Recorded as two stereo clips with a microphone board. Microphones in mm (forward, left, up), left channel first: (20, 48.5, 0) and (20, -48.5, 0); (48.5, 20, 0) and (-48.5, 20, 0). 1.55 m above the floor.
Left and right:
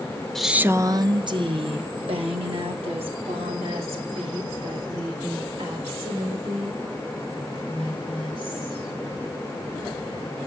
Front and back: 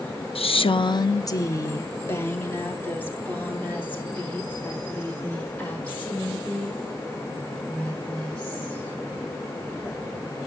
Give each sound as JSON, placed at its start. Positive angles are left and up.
{"t": 0.3, "sound": "a woman speaking", "azimuth_deg": 5, "distance_m": 0.5}